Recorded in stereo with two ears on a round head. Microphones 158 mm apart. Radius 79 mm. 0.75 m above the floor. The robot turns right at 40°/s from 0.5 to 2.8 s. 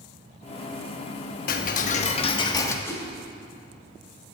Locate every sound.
1.5 s ticking: 110° left, 1.0 m; by 2.8 s 160° left, 1.0 m
2.9 s a whoosh: 15° left (ahead or behind), 2.5 m